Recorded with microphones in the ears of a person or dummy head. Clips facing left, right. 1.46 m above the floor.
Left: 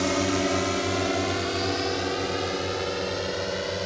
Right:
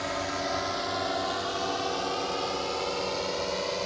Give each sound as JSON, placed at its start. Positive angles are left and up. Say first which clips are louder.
{"t": 0.0, "sound": "a drone", "louder": "left 8 dB", "side_deg": 55}